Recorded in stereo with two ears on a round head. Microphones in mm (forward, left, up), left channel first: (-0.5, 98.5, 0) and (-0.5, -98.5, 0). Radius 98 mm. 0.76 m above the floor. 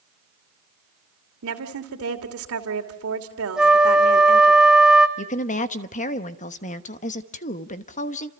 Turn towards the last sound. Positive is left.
turn(degrees=35)  # may be behind; listen again after turning